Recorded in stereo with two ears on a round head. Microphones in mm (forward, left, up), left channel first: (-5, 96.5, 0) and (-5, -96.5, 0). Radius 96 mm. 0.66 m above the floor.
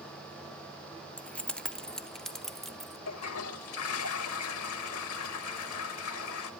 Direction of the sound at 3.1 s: 75° left (ahead or behind).